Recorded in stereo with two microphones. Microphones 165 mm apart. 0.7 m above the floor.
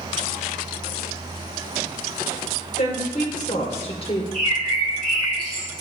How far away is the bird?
About 5 m.